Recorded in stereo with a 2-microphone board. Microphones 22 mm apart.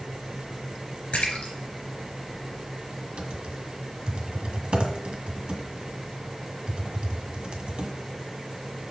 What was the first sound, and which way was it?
A splash, 70° left (ahead or behind).